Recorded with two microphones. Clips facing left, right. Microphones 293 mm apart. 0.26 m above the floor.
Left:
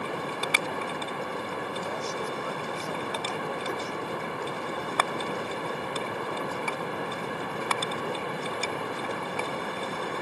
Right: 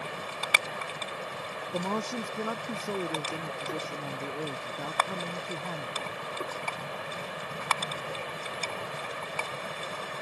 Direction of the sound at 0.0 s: 60° left (ahead or behind).